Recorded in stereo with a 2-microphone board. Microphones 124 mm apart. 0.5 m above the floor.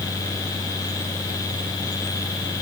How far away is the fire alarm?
I don't hear a fire alarm.